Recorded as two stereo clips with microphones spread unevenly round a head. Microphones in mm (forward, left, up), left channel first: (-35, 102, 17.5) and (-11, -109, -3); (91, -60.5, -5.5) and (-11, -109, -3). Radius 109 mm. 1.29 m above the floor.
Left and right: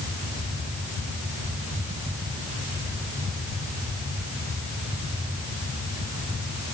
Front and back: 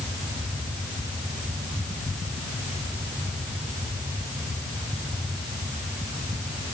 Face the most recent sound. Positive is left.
No sound to turn to.